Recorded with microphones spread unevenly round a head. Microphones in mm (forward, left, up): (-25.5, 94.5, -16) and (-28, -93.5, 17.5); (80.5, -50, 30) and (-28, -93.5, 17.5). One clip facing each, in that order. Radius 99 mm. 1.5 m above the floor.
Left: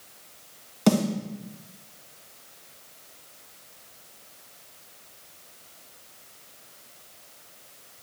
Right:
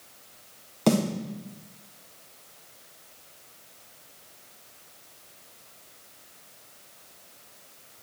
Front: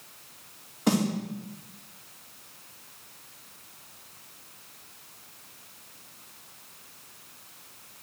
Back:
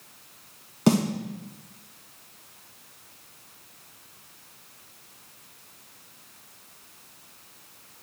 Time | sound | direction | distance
0.9 | a snare drum | straight behind | 3 m